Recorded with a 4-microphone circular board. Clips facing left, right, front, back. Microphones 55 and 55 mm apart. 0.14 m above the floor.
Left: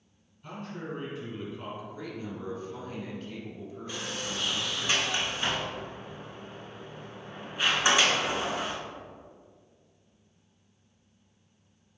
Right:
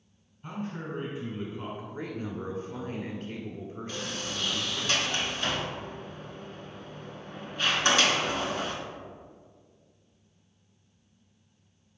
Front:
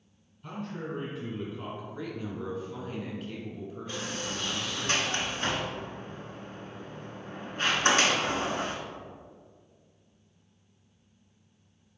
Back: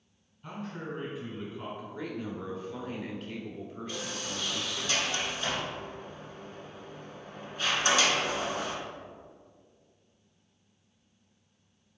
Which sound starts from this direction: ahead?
A sliding door, at 3.9 s.